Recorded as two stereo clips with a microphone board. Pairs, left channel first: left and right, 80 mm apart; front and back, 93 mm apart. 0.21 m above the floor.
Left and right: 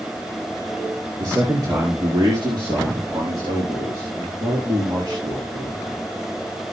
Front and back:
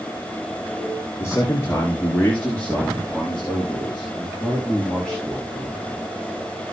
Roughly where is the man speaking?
Ahead right.